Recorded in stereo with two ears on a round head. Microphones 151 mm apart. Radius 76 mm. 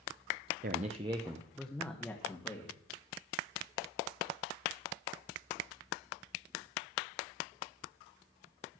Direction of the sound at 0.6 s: 50° right (ahead or behind).